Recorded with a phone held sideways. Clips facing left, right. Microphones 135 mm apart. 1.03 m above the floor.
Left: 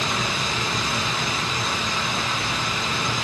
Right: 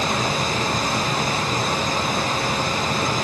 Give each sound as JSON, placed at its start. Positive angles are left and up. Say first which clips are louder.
{"t": 0.0, "sound": "a machine running", "louder": "right 4 dB", "side_deg": -45, "distance_m": 0.8}